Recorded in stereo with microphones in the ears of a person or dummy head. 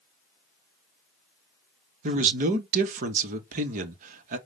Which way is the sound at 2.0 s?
40° right (ahead or behind).